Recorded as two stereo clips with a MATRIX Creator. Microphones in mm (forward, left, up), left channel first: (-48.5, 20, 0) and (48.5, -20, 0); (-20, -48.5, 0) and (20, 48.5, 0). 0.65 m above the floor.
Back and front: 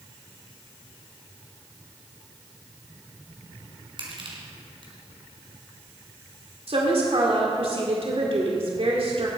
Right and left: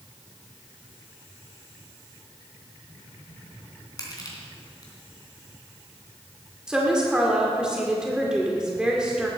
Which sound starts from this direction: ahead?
A woman speaking, at 6.7 s.